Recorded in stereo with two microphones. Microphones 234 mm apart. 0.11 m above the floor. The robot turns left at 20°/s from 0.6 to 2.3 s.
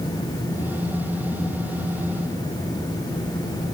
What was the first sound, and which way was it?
Only background noise.